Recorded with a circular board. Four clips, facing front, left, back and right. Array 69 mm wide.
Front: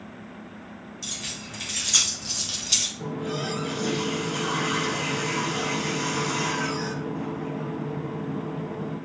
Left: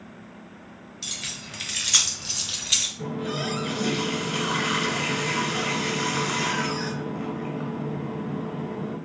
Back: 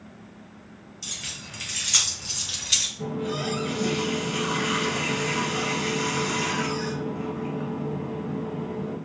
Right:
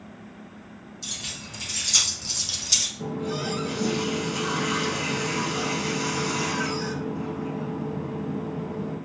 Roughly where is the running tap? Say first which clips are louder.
Even, back 1 dB; left.